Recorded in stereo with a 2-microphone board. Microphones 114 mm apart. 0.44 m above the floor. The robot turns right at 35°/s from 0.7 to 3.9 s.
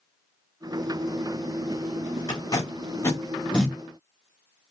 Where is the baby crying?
I don't hear a baby crying.